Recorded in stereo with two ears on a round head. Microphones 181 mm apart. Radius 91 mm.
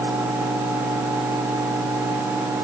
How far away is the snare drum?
I don't hear a snare drum.